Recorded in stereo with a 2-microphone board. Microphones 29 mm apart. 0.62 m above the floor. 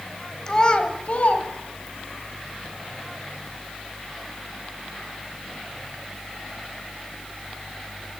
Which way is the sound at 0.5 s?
20° left (ahead or behind).